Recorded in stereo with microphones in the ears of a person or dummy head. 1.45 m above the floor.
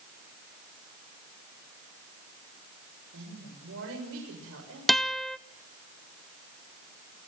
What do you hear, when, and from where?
3.1 s a woman speaking: 75° right (ahead or behind), 6.5 m
4.9 s a guitar: centre (ahead or behind), 0.5 m